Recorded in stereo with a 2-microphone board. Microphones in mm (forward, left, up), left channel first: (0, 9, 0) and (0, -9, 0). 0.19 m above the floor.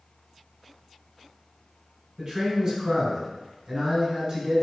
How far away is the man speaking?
About 2.0 m.